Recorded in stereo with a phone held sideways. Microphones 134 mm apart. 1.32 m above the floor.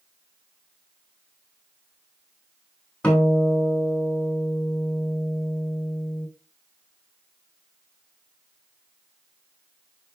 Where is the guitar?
5° left (ahead or behind), 3.5 m.